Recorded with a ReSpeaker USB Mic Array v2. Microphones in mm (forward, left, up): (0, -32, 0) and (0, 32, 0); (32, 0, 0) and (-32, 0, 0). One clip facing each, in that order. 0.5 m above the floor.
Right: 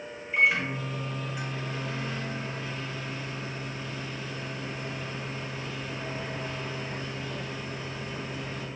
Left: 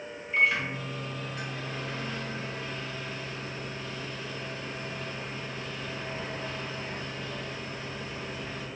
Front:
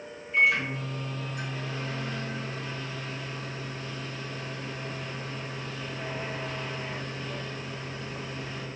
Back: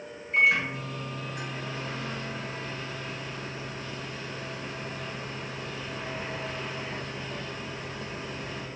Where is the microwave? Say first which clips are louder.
Right 1 dB, back 1 dB; 165° right, 1.4 m.